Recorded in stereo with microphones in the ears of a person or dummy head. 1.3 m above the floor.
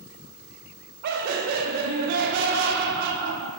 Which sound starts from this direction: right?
Laughter, at 1.0 s.